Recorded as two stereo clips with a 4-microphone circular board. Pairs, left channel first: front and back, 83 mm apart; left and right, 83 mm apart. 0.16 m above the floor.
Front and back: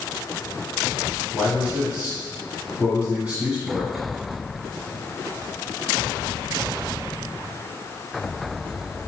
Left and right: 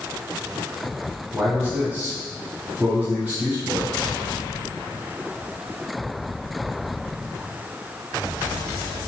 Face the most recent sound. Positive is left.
turn(degrees=-125)